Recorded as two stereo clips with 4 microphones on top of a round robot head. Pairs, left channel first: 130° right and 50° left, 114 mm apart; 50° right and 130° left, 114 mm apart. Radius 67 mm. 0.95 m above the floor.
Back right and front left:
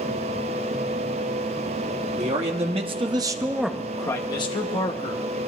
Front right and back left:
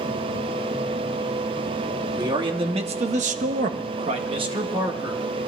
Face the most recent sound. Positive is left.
turn(degrees=-165)